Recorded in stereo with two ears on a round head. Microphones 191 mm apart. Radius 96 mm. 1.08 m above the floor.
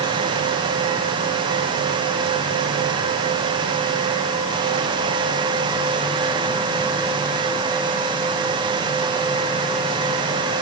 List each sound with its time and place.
Only background noise.